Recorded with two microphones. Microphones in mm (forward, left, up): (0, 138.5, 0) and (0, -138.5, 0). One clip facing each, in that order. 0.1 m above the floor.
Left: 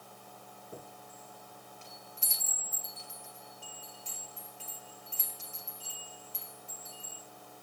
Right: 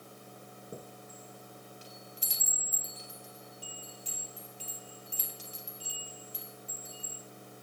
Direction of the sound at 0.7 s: 40° right (ahead or behind).